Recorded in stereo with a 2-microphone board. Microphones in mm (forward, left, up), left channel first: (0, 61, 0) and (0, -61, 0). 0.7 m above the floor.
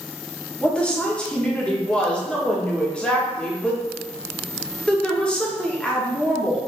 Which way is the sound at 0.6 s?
10° left (ahead or behind).